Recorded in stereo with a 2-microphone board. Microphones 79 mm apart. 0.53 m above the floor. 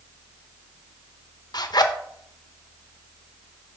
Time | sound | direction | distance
1.5 | a zipper | 55° left (ahead or behind) | 0.5 m